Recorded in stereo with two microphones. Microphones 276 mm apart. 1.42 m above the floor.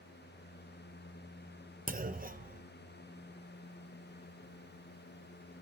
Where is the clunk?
30° right (ahead or behind), 0.6 m.